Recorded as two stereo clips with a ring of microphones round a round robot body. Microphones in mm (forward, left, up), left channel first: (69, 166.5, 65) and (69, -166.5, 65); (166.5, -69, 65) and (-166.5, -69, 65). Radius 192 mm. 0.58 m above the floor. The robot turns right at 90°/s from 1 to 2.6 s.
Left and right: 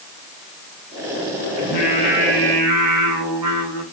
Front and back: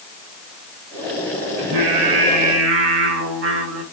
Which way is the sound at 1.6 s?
135° left.